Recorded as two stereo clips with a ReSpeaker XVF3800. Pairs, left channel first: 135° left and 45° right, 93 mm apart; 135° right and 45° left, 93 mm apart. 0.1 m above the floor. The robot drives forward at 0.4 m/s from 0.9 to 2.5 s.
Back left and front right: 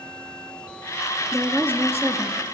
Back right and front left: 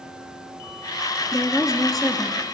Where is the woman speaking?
100° left, 1.2 m; by 2.4 s 140° left, 1.3 m.